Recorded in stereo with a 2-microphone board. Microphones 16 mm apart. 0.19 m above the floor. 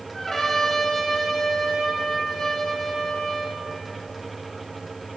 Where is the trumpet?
20° left (ahead or behind), 1.6 m.